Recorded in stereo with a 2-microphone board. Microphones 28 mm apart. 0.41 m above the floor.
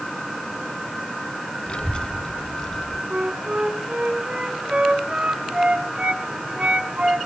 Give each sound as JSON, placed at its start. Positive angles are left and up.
{"t": 1.7, "sound": "a child speaking", "side_deg": 45, "distance_m": 0.8}
{"t": 3.1, "sound": "a flute", "side_deg": -50, "distance_m": 3.0}